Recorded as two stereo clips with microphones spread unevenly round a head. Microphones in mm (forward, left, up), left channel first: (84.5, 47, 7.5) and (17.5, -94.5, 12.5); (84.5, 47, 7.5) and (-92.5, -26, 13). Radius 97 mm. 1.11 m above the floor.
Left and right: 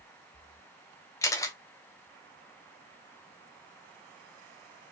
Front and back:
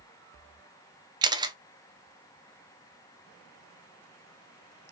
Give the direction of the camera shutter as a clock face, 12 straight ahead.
7 o'clock.